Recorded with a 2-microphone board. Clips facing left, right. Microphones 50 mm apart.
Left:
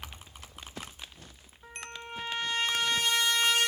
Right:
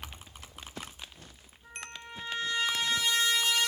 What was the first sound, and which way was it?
A trumpet, 55° left (ahead or behind).